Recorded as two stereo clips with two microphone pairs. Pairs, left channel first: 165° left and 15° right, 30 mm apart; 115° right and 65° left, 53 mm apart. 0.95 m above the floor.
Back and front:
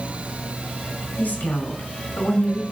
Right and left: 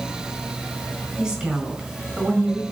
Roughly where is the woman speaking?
Behind left.